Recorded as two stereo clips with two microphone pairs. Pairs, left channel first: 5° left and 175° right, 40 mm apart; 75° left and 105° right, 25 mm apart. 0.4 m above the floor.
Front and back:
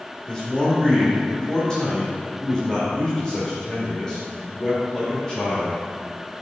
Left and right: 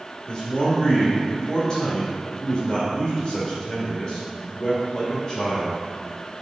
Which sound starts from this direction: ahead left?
A man speaking, at 0.3 s.